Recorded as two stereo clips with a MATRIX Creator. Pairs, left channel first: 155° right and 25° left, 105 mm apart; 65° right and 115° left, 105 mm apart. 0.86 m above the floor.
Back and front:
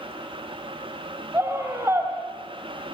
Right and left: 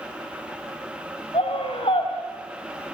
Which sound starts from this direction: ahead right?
A scream, at 1.3 s.